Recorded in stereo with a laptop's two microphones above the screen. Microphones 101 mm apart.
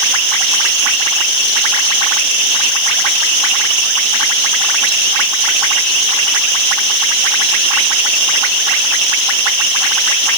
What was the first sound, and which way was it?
Only background noise.